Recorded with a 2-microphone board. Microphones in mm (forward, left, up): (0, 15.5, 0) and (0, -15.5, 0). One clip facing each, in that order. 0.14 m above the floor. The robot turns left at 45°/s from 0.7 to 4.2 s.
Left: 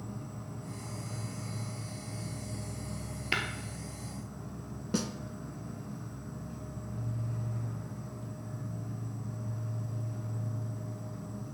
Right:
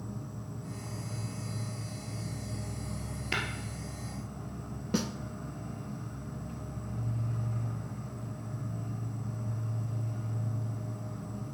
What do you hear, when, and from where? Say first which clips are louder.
0.0 s an insect: right 1 dB; 80° left, 3 m; by 11.6 s 75° right, 3 m
3.3 s tapping: left 1 dB; 15° left (ahead or behind), 1.4 m; by 3.4 s 20° left (ahead or behind), 1.4 m
4.9 s a snare drum: right 1 dB; 10° right (ahead or behind), 0.5 m